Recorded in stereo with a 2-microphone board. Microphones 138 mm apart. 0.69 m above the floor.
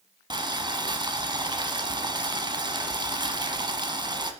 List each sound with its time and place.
0.3 s boiling: 35° right (ahead or behind), 0.9 m